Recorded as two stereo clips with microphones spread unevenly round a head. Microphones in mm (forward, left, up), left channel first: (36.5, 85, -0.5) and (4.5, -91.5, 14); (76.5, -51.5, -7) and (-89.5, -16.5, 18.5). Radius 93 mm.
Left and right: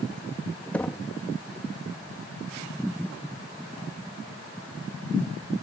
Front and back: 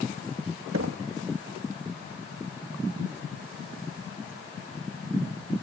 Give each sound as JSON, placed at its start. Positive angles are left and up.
{"t": 0.7, "sound": "knocking", "azimuth_deg": 165}